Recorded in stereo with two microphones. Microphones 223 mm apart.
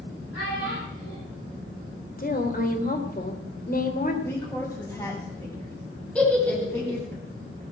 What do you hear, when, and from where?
0.3 s a child speaking: 90° left, 8 m
2.2 s a woman speaking: 40° left (ahead or behind), 3 m
4.2 s a woman speaking: 10° left (ahead or behind), 5.5 m
6.2 s a giggle: 5° left (ahead or behind), 5 m